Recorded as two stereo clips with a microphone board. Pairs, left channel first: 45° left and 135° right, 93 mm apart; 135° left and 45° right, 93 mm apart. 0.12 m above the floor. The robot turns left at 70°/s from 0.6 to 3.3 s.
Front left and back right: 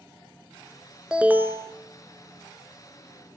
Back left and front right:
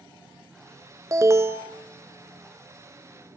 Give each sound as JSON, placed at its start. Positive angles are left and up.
{"t": 1.1, "sound": "an alarm", "azimuth_deg": -65, "distance_m": 1.1}